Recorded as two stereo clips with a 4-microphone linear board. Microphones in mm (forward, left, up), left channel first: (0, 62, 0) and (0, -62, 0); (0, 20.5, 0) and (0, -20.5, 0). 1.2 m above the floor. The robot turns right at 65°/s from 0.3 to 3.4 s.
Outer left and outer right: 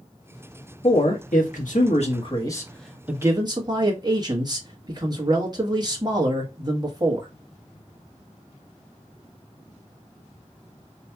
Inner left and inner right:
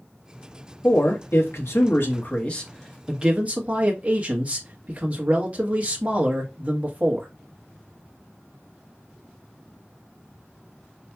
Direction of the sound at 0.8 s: 45° left.